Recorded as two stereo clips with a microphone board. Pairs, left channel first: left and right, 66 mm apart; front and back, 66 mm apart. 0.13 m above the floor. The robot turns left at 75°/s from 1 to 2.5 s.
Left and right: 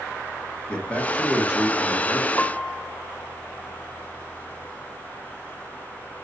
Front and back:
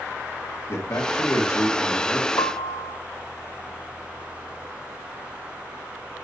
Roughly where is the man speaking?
Ahead.